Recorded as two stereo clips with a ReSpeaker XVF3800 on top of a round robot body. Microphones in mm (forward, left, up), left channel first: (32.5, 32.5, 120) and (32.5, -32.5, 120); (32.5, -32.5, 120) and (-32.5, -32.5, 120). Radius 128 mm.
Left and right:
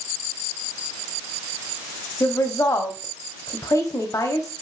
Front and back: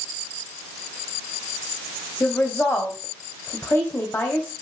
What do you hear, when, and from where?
2.2 s a woman speaking: 60° left, 3 m